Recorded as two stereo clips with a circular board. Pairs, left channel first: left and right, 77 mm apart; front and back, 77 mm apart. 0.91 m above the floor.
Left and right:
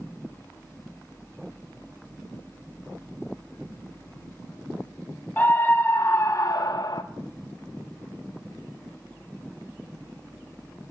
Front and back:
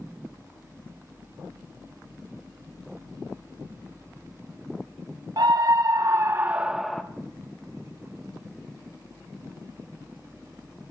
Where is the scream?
155° left, 0.9 m; by 7.0 s 80° left, 0.6 m.